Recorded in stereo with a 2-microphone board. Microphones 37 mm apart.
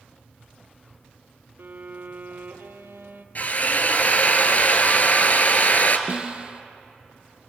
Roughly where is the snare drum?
Right.